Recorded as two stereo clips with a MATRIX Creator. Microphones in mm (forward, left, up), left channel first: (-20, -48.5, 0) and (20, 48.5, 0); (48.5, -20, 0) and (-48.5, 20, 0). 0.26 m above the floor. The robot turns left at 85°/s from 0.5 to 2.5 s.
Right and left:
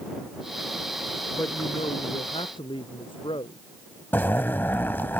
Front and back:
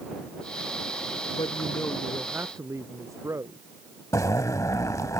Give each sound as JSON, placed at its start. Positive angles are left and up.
{"t": 1.3, "sound": "a woman speaking", "azimuth_deg": -45}
{"t": 4.1, "sound": "a zipper", "azimuth_deg": -55}